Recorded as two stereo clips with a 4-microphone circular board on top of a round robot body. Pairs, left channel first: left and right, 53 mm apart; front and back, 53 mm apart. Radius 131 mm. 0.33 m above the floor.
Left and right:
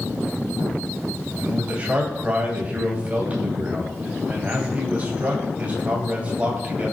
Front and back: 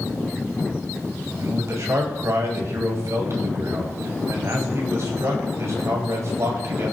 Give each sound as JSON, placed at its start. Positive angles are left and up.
{"t": 1.4, "sound": "a man speaking", "azimuth_deg": -155, "distance_m": 3.0}